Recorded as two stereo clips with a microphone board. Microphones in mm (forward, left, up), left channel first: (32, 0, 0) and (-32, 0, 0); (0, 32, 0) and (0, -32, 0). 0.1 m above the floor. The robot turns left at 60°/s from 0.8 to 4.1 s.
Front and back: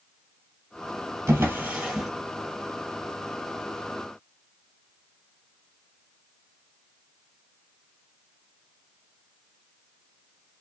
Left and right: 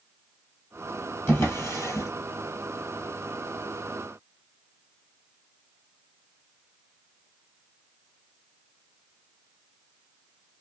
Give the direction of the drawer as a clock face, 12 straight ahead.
7 o'clock.